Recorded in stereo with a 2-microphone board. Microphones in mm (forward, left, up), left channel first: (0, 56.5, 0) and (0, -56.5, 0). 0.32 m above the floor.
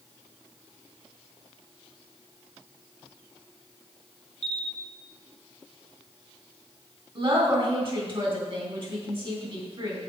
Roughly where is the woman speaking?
Right.